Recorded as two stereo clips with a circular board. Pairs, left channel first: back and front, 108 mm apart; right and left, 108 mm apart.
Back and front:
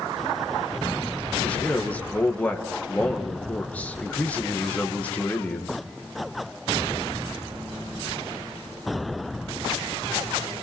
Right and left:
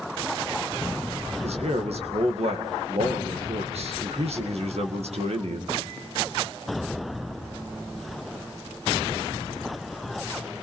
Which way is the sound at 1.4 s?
105° left.